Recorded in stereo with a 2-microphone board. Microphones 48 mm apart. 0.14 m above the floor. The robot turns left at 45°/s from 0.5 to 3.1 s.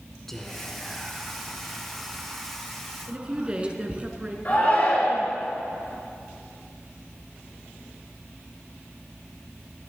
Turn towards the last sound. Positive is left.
turn(degrees=40)  # may be behind; listen again after turning